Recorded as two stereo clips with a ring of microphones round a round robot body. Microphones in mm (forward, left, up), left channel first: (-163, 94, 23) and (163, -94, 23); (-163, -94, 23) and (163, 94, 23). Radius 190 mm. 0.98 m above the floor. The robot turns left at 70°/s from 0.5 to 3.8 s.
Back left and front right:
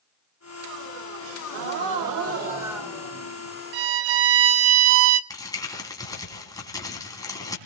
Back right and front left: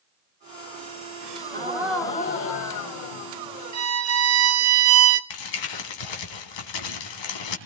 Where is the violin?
20° right, 0.8 m; by 5.2 s 25° right, 0.8 m.